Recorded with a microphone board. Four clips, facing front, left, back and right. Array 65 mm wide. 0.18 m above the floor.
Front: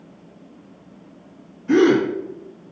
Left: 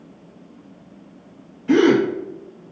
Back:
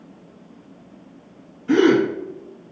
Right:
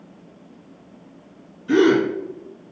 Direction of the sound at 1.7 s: 100° left.